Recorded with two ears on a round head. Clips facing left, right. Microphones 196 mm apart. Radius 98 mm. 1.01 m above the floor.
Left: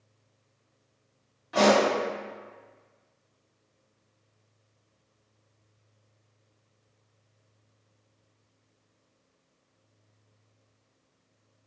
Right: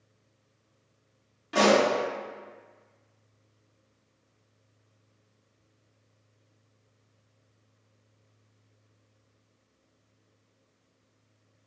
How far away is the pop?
About 1.8 m.